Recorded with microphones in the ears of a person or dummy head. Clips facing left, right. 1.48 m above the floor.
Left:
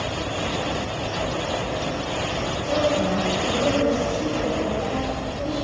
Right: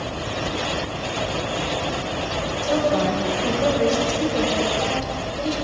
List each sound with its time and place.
2.6 s a woman speaking: 80° right, 1.9 m